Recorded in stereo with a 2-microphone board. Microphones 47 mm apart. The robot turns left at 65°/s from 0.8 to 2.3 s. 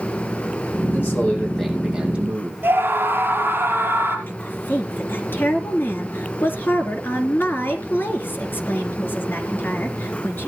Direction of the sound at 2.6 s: 50° right (ahead or behind).